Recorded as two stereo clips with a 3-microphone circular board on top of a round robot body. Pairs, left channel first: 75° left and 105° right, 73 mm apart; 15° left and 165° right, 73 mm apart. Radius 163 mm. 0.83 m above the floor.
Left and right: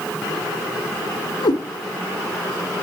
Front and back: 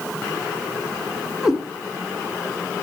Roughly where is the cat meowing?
Behind left.